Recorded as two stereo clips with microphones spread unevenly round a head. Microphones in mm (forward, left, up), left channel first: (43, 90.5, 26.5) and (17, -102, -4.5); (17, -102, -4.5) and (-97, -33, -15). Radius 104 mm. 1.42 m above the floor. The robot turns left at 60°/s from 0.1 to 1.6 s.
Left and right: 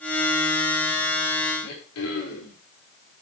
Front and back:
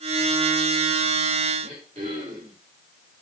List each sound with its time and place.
1.6 s throat clearing: 85° left, 5.5 m